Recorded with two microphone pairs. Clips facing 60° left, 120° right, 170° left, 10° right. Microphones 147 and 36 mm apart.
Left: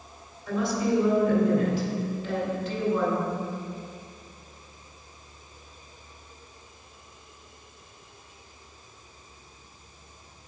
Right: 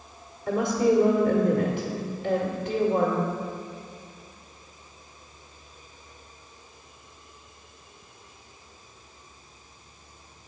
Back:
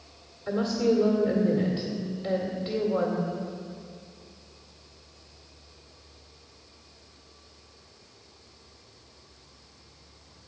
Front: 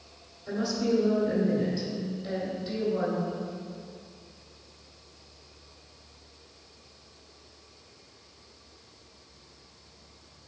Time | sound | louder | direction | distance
0.5 | a woman speaking | right 4 dB, back 3 dB | 155° right | 2 m